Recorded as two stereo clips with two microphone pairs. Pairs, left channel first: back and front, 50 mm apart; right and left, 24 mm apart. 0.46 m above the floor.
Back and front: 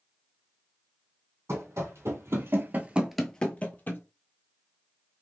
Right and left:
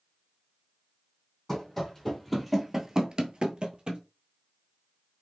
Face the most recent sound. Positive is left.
turn(degrees=135)